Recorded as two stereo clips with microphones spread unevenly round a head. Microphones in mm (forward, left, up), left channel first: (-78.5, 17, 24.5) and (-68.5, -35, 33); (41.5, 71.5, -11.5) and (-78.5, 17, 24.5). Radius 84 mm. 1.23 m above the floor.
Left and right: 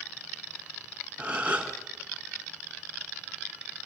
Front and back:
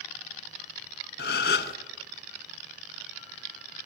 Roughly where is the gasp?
Ahead.